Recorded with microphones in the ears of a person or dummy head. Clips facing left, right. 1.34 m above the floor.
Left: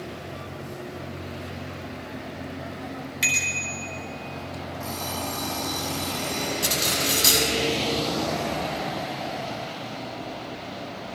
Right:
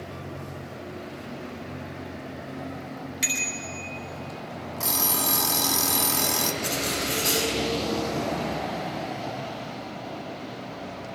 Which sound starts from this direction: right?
An alarm clock, at 4.8 s.